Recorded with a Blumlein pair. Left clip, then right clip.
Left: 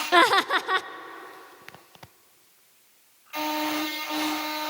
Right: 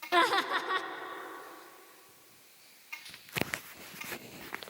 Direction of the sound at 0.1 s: 25° left.